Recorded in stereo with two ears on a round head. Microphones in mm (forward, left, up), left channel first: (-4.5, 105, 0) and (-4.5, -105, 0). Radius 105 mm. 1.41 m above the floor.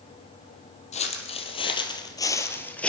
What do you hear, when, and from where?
0.9 s footsteps: 30° left (ahead or behind), 2.5 m; by 2.9 s 5° left (ahead or behind), 1.7 m